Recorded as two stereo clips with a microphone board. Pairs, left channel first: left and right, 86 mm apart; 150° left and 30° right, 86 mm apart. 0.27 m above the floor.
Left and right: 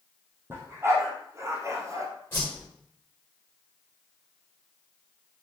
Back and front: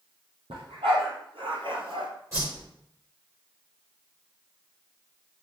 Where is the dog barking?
30° right, 4 m; by 2.1 s 40° right, 1.8 m.